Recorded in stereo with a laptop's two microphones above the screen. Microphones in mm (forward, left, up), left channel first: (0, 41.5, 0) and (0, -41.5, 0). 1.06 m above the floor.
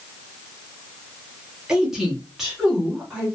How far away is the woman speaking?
About 0.7 m.